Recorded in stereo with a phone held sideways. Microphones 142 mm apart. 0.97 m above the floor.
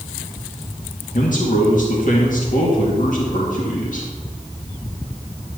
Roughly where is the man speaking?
Left.